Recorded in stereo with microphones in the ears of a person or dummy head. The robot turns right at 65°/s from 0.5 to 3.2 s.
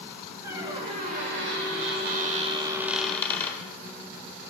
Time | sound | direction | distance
0.4 | a squeak | 165° right | 1.7 m